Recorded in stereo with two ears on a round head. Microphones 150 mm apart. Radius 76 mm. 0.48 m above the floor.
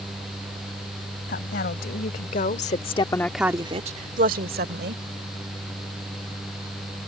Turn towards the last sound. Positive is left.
turn(degrees=-65)  # may be behind; listen again after turning